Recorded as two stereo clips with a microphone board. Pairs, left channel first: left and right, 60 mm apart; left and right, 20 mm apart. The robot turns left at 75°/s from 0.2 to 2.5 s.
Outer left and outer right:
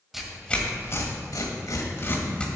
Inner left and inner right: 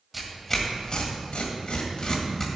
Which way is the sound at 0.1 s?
5° right (ahead or behind).